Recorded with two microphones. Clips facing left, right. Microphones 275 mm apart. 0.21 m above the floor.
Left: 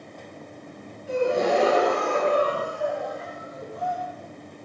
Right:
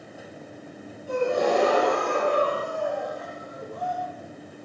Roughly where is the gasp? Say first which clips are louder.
Left 1 dB; left.